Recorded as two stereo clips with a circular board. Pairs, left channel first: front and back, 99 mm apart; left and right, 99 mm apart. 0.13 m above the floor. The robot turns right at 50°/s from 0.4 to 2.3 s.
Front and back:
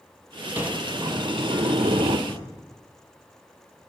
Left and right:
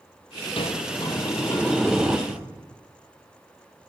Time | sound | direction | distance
0.6 | a sliding door | 110° left | 1.0 m
2.3 | breathing | 140° left | 7 m